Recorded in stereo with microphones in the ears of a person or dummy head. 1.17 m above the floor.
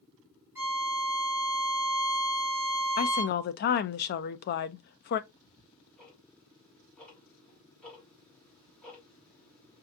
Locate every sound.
0.6 s a violin: 15° right (ahead or behind), 1.2 m
3.0 s a woman speaking: 50° left (ahead or behind), 0.6 m
5.3 s ticking: 5° left (ahead or behind), 1.8 m